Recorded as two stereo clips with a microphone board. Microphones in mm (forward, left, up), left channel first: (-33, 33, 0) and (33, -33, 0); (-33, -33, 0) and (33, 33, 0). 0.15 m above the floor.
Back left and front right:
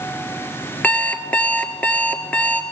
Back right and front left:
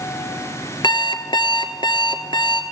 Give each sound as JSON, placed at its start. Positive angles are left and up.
{"t": 0.8, "sound": "an alarm clock", "azimuth_deg": -155, "distance_m": 1.6}